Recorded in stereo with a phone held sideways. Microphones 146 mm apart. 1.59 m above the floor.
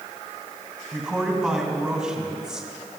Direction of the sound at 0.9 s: 5° right (ahead or behind).